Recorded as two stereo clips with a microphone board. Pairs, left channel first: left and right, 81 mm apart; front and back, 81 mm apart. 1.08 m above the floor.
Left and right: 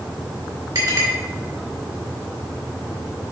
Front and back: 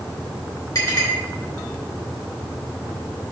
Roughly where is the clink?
Ahead right.